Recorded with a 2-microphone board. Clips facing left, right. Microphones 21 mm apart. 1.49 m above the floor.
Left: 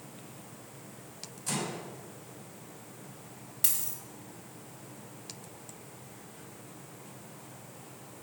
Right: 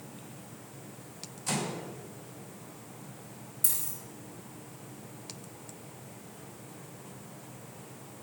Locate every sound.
1.5 s a microwave: 5° right (ahead or behind), 5 m
3.6 s a dropped coin: 60° left (ahead or behind), 2.5 m